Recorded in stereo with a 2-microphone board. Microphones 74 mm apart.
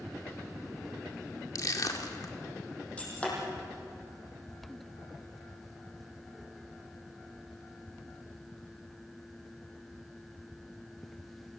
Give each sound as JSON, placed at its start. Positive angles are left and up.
{"t": 1.6, "sound": "crushing", "side_deg": 60, "distance_m": 1.9}
{"t": 3.0, "sound": "breaking glass", "side_deg": 20, "distance_m": 7.0}